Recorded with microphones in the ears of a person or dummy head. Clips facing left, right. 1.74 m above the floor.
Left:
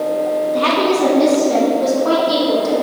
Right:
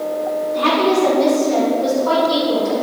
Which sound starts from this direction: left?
A woman speaking, at 0.5 s.